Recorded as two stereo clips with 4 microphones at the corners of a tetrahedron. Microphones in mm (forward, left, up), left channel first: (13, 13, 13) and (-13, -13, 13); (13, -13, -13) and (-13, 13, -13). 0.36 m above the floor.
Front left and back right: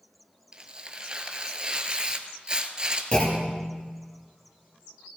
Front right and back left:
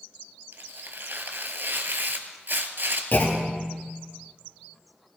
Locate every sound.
0.5 s tearing paper: 160° left, 1.0 m
3.1 s a clunk: 15° right, 3 m